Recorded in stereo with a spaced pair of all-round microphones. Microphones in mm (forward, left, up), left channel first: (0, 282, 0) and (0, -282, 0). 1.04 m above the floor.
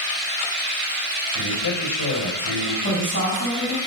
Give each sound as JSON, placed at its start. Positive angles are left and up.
{"t": 1.4, "sound": "a man speaking", "side_deg": 40, "distance_m": 4.5}
{"t": 2.8, "sound": "a woman speaking", "side_deg": 20, "distance_m": 6.0}